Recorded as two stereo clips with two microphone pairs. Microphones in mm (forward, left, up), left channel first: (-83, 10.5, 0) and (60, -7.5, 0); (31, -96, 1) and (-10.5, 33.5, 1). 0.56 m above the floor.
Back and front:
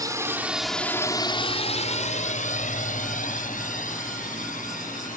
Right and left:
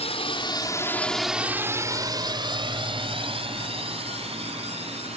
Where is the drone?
65° right; by 5.2 s 150° left.